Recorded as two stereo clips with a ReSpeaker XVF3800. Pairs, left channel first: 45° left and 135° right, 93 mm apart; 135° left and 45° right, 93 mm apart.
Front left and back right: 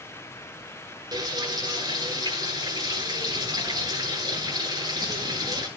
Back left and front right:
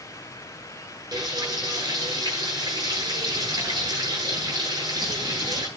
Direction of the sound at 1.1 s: 90° right.